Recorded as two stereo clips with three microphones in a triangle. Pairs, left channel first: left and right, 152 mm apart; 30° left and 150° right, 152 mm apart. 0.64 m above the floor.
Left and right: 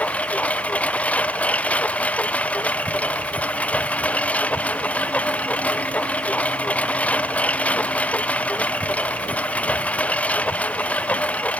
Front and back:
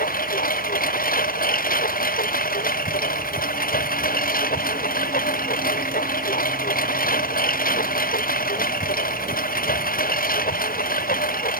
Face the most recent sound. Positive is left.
turn(degrees=10)